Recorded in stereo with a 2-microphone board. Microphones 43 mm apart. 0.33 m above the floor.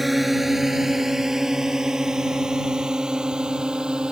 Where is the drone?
Centre (ahead or behind); by 4.1 s 20° right (ahead or behind).